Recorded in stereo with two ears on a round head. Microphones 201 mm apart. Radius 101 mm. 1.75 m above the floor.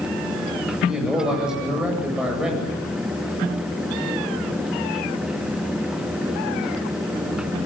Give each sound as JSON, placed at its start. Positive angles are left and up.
{"t": 0.7, "sound": "a man speaking", "side_deg": -5, "distance_m": 8.5}